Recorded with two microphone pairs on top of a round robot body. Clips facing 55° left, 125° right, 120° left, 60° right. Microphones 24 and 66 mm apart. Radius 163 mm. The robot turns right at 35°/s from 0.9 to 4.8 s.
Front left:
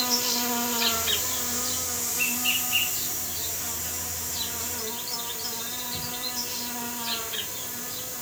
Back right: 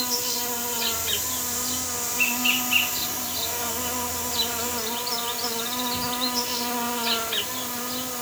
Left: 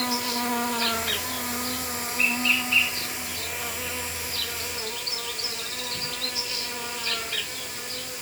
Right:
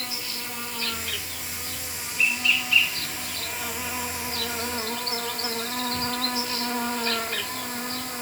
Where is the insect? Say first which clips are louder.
Front left 1 dB, left 9 dB; 110° left, 1.3 m; by 8.2 s 115° right, 1.3 m.